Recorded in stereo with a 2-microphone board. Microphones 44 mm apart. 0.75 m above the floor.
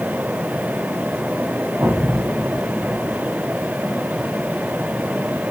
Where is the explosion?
85° right, 2 m.